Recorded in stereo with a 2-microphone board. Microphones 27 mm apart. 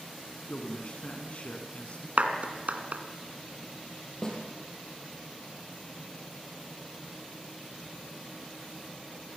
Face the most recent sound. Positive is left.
turn(degrees=25)  # may be behind; listen again after turning